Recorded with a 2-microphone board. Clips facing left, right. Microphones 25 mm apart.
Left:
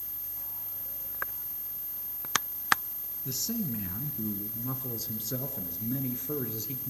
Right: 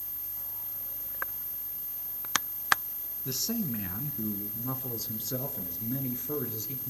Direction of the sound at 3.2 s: 30° right (ahead or behind).